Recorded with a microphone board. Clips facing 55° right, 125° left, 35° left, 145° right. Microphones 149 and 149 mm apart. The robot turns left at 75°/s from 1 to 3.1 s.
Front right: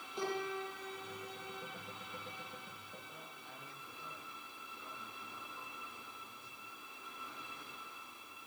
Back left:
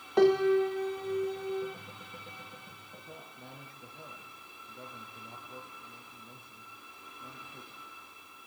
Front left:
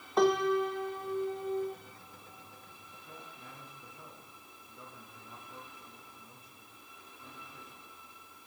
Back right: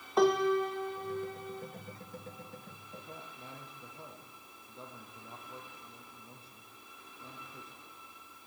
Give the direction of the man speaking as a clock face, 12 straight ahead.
7 o'clock.